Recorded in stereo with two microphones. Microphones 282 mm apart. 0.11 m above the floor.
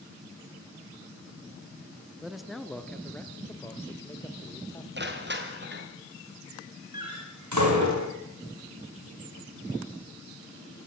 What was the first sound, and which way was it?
A man speaking, centre (ahead or behind).